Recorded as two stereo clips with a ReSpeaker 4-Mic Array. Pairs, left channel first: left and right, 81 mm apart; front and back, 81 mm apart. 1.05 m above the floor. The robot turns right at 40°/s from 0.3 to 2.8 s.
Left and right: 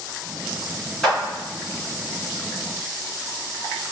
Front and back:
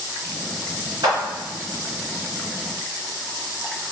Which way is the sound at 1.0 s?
175° left.